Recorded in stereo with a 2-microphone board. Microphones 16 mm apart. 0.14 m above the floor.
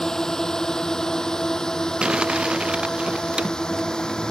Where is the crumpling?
80° right.